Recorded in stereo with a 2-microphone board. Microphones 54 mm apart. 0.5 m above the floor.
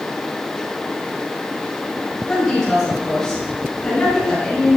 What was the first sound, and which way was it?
A woman speaking, 5° left (ahead or behind).